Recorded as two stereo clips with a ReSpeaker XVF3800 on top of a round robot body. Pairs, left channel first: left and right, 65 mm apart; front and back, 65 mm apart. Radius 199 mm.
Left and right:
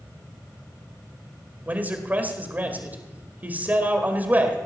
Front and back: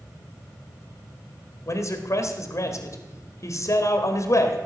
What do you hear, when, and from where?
1.7 s a man speaking: 30° right, 2 m